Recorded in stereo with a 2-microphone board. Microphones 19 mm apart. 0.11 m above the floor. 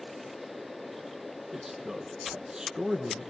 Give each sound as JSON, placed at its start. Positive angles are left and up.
{"t": 1.5, "sound": "a man speaking", "side_deg": -20, "distance_m": 3.5}